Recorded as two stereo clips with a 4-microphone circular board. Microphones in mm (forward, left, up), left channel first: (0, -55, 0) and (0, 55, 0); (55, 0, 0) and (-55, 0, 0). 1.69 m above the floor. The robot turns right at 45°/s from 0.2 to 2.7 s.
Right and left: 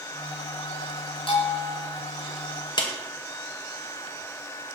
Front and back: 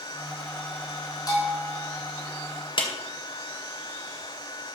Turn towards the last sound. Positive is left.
turn(degrees=-45)